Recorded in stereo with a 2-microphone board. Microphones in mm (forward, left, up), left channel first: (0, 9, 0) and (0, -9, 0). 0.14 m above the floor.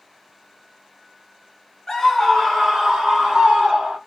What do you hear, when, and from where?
1.9 s a scream: 15° left (ahead or behind), 1.1 m; by 4.0 s 65° right (ahead or behind), 2.5 m